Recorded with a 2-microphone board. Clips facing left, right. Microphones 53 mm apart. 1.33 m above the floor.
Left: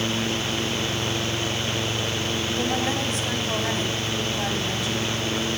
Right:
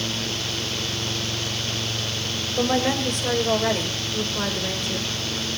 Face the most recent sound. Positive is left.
turn(degrees=-50)  # may be behind; listen again after turning